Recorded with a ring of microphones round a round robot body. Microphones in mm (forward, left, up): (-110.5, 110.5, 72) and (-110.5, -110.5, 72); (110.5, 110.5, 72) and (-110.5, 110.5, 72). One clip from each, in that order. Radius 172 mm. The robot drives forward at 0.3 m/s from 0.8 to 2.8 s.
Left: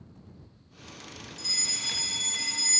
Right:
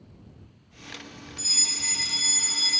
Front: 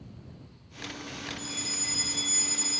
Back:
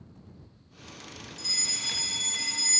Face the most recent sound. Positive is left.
turn(degrees=-150)